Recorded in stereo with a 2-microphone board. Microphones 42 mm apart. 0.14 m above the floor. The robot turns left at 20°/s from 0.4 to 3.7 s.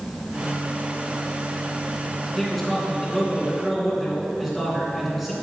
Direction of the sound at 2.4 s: 5° left (ahead or behind).